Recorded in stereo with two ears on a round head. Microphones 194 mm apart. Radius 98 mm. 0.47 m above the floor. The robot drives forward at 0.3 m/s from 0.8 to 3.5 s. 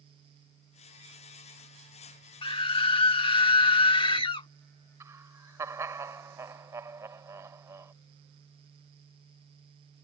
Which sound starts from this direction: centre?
Laughter, at 5.0 s.